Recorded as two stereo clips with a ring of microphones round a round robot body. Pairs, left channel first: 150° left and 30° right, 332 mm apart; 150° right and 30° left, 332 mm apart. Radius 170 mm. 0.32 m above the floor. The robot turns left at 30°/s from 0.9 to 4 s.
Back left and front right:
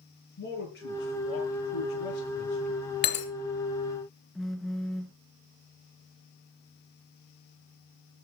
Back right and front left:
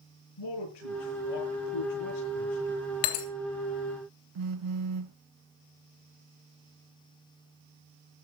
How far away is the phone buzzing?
About 0.7 m.